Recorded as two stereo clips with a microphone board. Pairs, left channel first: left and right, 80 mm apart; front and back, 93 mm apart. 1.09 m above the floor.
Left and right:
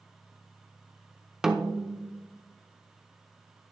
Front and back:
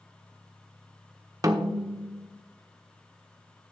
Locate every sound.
1.4 s a snare drum: 170° right, 0.8 m